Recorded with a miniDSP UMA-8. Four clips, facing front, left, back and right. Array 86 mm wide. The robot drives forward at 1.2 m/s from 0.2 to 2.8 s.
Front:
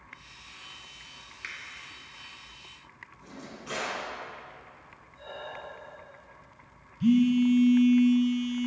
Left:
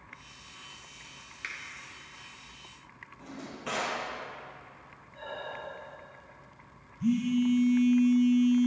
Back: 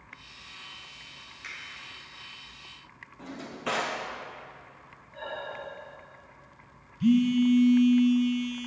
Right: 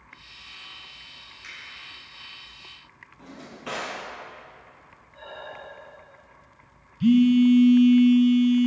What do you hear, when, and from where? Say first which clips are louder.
1.4 s a finger snap: left 4 dB, front 2 dB; 55° left, 3 m; by 1.6 s 60° left, 3 m
3.2 s a drawer: right 1 dB, back 8 dB; 175° right, 2.5 m
5.1 s breathing: even, back 4 dB; straight behind, 3.5 m
7.0 s a phone buzzing: right 10 dB, even; 100° right, 0.8 m